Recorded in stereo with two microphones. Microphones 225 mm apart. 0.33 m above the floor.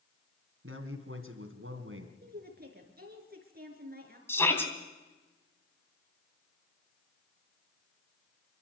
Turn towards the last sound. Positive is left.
turn(degrees=10)  # may be behind; listen again after turning